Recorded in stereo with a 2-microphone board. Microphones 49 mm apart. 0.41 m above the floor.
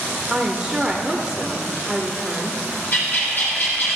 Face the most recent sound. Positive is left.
turn(degrees=45)  # may be behind; listen again after turning